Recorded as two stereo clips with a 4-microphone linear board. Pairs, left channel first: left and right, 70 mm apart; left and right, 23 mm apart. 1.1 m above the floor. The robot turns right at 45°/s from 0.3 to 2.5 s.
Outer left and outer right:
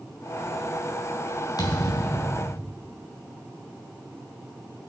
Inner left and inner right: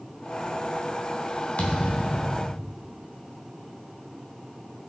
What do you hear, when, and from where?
1.6 s a thud: 110° left, 3 m; by 2.7 s 155° left, 3 m